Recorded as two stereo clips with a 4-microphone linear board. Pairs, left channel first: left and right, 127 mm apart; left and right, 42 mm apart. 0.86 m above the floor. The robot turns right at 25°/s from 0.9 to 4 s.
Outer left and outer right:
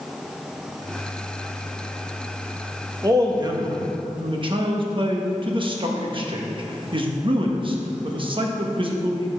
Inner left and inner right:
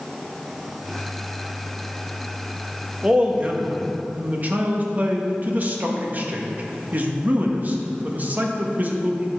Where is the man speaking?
25° right (ahead or behind), 1.0 m; by 9.4 s 40° right (ahead or behind), 1.0 m.